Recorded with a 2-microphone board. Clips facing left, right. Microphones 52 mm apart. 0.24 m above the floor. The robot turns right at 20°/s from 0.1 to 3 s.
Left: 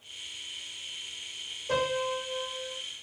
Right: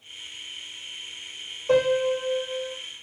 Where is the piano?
80° right, 1.3 m; by 2.8 s 60° right (ahead or behind), 1.3 m.